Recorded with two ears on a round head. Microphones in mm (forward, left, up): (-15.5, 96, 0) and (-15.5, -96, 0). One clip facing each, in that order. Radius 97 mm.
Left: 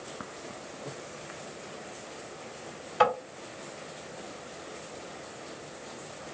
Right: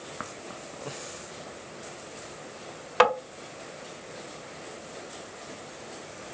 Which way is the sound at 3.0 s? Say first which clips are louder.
Right 3 dB; 80° right.